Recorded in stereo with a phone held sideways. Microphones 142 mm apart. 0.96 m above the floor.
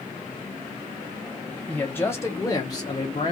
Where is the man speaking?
10° left (ahead or behind), 1.1 m; by 3.3 s 30° left (ahead or behind), 1.0 m.